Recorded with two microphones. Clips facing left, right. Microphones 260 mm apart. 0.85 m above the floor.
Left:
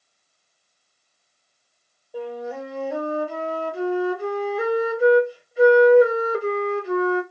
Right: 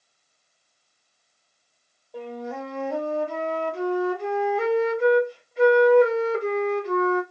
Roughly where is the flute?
Centre.